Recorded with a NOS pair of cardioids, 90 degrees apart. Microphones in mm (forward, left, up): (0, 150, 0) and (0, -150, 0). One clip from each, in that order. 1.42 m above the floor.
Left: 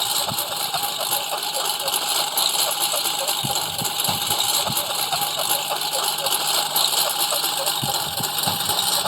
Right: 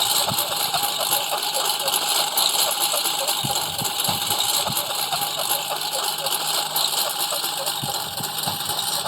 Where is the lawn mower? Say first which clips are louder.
Right 2 dB; 10° right; by 9.1 s 30° left.